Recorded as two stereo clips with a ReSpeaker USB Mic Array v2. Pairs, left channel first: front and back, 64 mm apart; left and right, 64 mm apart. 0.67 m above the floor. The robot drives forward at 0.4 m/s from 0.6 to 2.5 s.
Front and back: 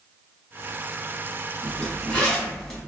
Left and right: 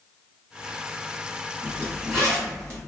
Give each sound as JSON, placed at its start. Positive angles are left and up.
{"t": 1.6, "sound": "a zipper", "azimuth_deg": -55, "distance_m": 1.2}